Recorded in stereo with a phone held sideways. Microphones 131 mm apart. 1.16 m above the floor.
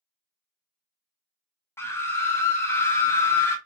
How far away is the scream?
About 0.5 m.